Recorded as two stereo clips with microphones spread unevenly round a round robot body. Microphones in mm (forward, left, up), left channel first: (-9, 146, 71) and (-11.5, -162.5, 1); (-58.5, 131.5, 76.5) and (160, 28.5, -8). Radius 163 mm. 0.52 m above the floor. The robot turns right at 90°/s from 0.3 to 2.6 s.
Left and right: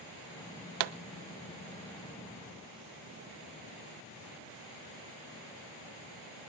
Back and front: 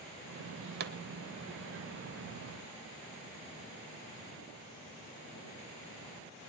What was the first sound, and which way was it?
A pop, 85° right.